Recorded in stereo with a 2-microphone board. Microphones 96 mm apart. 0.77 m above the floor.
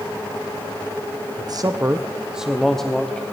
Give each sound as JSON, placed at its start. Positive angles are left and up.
{"t": 1.4, "sound": "a man speaking", "side_deg": -45, "distance_m": 0.6}